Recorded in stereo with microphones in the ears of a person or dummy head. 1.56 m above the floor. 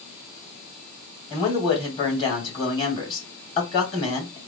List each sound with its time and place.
1.3 s a man speaking: 30° left (ahead or behind), 1.6 m